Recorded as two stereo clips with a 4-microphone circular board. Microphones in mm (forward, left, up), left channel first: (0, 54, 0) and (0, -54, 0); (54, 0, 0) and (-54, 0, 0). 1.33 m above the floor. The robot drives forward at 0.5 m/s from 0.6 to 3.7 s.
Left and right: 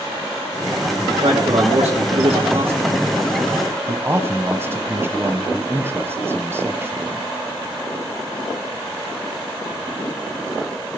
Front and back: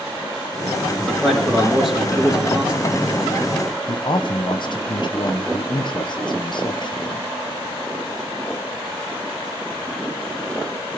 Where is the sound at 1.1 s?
80° right, 3 m; by 3.0 s 100° right, 3 m.